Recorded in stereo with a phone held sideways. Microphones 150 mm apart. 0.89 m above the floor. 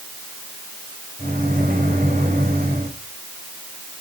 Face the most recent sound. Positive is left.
turn(degrees=-80)